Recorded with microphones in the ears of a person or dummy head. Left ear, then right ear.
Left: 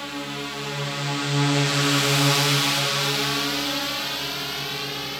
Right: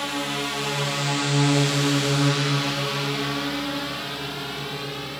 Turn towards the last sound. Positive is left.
turn(degrees=25)  # may be behind; listen again after turning